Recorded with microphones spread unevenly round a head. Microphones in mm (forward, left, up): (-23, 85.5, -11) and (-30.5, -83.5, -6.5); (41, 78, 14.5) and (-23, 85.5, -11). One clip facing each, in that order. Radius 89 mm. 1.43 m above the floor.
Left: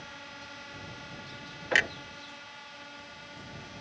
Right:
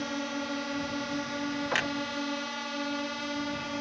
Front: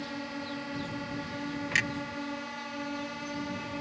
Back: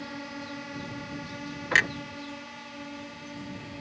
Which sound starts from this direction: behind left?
A clunk, at 1.7 s.